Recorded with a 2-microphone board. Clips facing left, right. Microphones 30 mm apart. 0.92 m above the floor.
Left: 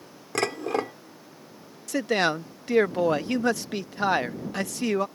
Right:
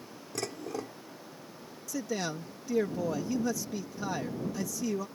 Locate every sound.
0.3 s dishes clattering: 70° left (ahead or behind)
1.9 s a man speaking: 65° left (ahead or behind)